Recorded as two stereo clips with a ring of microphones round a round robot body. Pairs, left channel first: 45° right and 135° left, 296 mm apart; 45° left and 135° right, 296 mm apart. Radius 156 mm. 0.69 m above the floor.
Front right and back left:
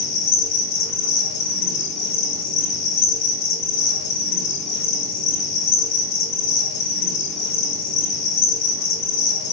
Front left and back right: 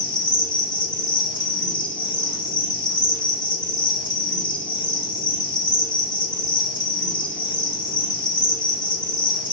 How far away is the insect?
About 1.0 m.